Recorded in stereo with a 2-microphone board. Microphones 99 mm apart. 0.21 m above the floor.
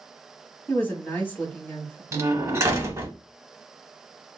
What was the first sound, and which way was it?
A woman speaking, 20° left (ahead or behind).